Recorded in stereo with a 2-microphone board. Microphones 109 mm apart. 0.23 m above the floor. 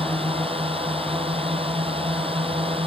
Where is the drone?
60° right (ahead or behind).